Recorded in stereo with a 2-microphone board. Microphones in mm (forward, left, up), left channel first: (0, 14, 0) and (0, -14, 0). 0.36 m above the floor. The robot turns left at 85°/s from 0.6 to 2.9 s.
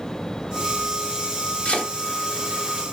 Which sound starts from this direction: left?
Chopping, at 1.6 s.